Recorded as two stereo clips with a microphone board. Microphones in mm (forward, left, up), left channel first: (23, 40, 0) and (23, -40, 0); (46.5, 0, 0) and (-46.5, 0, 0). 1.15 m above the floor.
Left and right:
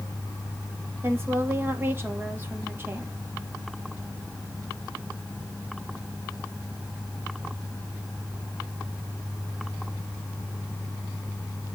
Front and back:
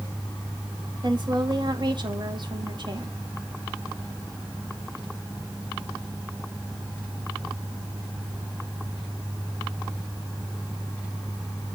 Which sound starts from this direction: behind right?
A woman speaking, at 1.0 s.